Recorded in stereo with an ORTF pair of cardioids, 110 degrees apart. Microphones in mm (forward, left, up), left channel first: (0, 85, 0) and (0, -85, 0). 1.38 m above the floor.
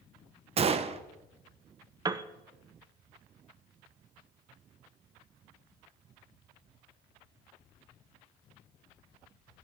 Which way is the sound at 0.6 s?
35° right.